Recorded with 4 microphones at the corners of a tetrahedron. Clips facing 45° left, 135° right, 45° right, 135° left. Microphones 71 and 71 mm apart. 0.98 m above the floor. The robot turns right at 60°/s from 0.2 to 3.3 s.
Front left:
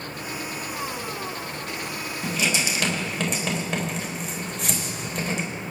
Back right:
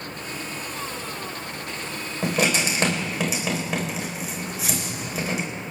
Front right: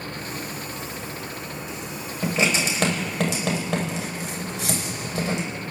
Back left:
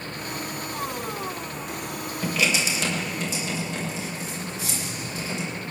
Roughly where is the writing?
Behind right.